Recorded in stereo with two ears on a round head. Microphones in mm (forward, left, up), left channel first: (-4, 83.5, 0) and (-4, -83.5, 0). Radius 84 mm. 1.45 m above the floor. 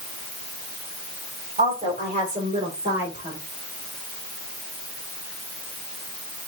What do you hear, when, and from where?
1.6 s a woman speaking: 35° right (ahead or behind), 5.5 m; by 3.4 s 20° right (ahead or behind), 6 m